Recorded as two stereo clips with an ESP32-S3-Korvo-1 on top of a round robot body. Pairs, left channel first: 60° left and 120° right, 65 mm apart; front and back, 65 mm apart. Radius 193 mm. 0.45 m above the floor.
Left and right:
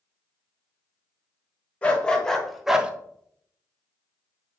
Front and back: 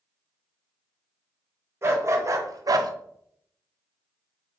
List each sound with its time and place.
1.8 s a dog barking: 135° left, 1.4 m; by 2.9 s 165° left, 0.7 m